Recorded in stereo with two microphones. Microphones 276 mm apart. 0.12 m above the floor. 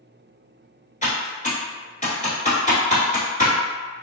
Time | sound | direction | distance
1.0 | typing on a keyboard | 25° left (ahead or behind) | 1.2 m